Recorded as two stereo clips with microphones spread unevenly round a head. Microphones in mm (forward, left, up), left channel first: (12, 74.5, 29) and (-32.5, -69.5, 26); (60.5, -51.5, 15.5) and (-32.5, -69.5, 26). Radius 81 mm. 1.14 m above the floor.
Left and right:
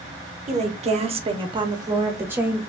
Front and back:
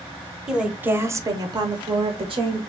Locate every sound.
0.5 s a woman speaking: 80° right, 0.9 m; by 2.6 s 175° left, 1.1 m